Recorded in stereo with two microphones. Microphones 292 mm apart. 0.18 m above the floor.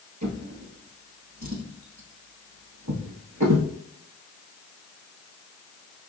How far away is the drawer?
About 1.5 m.